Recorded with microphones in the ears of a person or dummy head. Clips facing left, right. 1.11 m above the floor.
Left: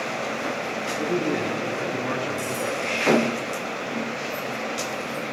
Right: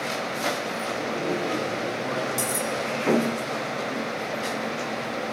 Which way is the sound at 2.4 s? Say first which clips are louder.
Left 1 dB; 65° right (ahead or behind).